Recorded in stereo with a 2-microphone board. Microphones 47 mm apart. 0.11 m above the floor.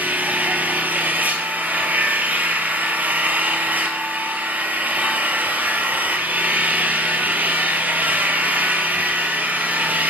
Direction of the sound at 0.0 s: 35° right (ahead or behind).